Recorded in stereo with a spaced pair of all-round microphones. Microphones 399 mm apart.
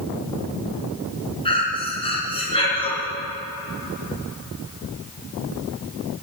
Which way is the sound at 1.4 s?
15° left (ahead or behind).